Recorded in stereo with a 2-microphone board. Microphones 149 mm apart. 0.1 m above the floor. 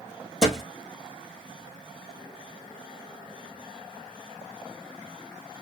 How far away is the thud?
About 1.4 m.